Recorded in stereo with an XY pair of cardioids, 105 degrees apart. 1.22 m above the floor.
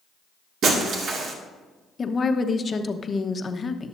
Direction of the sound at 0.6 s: 65° right.